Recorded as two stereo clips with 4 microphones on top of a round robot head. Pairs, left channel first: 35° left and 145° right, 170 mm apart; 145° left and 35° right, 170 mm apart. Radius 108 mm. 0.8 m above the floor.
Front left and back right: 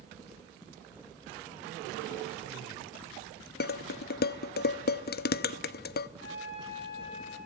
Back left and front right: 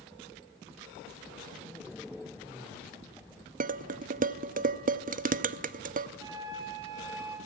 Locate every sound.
3.6 s dishes clattering: 5° left, 0.7 m
6.2 s a flute: 35° left, 6 m